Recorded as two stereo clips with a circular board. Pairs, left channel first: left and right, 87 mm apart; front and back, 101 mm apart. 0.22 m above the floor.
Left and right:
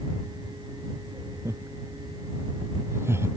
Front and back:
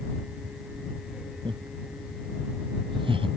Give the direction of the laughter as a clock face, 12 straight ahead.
5 o'clock.